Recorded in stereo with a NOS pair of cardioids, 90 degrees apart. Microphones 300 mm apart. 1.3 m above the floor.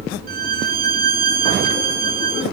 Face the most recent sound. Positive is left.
turn(degrees=-30)